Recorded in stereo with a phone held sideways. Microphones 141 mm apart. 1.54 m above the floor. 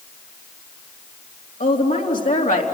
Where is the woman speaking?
90° left, 3.5 m.